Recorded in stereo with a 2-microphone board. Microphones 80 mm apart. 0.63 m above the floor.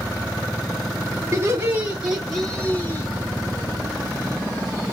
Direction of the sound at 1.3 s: 30° right (ahead or behind).